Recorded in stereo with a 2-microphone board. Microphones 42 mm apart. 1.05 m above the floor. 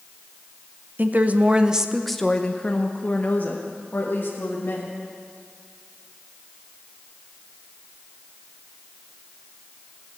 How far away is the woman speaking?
About 0.9 m.